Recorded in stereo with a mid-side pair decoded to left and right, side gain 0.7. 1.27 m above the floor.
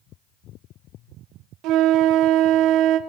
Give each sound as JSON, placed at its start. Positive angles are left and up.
{"t": 1.6, "sound": "a flute", "azimuth_deg": -60, "distance_m": 0.9}